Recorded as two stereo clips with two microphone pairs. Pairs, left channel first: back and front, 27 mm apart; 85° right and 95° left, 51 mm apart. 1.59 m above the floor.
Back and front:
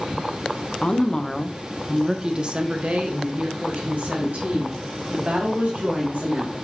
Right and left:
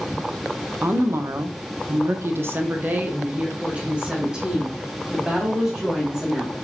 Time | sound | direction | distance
0.8 | a woman speaking | 130° left | 0.8 m